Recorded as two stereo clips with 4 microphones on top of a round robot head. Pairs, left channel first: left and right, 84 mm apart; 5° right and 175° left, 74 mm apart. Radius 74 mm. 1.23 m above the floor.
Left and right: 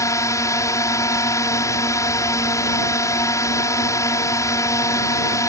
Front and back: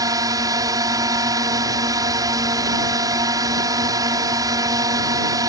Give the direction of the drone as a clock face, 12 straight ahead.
7 o'clock.